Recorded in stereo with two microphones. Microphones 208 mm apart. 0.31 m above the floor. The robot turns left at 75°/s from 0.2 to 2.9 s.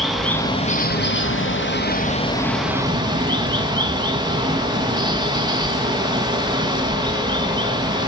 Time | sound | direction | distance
0.0 | running water | straight behind | 2.5 m